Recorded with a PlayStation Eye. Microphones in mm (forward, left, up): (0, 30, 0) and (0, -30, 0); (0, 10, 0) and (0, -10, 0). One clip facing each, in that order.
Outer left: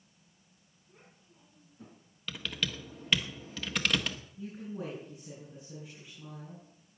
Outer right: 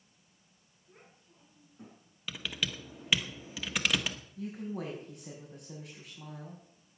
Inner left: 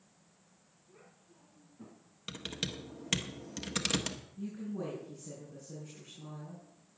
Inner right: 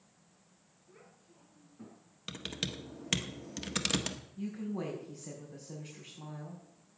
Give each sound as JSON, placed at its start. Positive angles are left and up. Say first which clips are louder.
{"t": 0.9, "sound": "a child speaking", "louder": "outer right 1 dB, inner right 1 dB", "side_deg": -45, "distance_m": 6.5}
{"t": 2.3, "sound": "typing on a keyboard", "louder": "even, even", "side_deg": -5, "distance_m": 1.4}
{"t": 4.4, "sound": "a woman speaking", "louder": "outer right 2 dB, inner right 3 dB", "side_deg": -70, "distance_m": 5.5}